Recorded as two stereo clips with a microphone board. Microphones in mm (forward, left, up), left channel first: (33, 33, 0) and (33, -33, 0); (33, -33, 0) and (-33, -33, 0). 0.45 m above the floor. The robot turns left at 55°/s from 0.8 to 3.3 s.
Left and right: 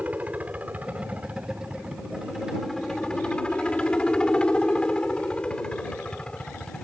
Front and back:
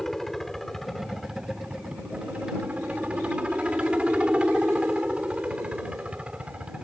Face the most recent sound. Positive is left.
turn(degrees=140)